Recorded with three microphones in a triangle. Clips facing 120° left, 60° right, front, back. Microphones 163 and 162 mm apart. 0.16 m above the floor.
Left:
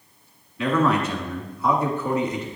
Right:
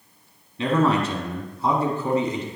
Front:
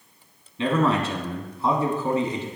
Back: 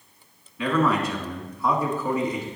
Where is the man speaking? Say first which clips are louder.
Even, front 1 dB; 35° right, 1.2 m.